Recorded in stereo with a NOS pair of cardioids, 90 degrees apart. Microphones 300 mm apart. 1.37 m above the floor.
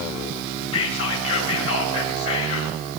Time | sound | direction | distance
0.7 | whispering | 55° left | 1.5 m